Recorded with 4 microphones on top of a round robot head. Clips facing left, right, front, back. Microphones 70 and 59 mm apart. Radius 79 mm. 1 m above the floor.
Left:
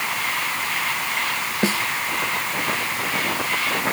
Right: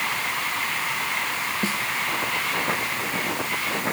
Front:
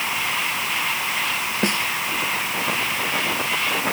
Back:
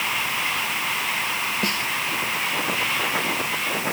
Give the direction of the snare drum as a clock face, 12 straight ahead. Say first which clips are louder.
Left 8 dB, front 3 dB; 10 o'clock.